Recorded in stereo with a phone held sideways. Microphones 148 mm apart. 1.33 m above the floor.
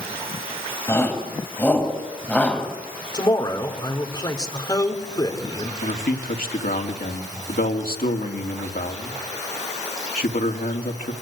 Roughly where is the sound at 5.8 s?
Left.